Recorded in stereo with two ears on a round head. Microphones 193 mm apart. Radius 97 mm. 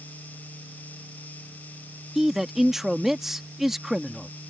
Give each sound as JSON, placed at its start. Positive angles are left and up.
{"t": 2.1, "sound": "a man speaking", "side_deg": 0}